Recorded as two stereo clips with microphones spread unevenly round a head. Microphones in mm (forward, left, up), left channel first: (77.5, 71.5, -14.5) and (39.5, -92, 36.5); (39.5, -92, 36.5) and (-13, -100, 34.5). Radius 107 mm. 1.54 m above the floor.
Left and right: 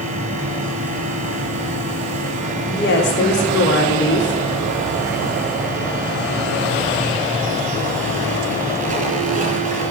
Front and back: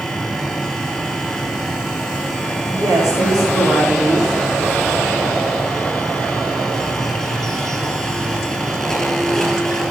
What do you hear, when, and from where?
0.0 s a fan: 65° right, 4.5 m
2.6 s a woman speaking: 80° left, 3.5 m